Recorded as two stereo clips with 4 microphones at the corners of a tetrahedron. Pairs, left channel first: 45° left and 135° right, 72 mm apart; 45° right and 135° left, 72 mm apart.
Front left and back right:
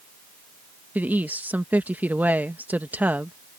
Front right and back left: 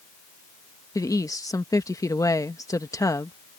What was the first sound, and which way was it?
A woman speaking, 70° right.